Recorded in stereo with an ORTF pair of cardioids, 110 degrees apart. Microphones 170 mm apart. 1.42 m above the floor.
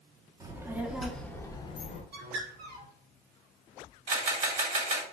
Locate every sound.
0.4 s a child speaking: 20° right, 0.9 m; by 2.0 s 45° left, 0.7 m
2.1 s a bird: 60° right, 1.3 m
4.1 s a camera shutter: 50° right, 1.6 m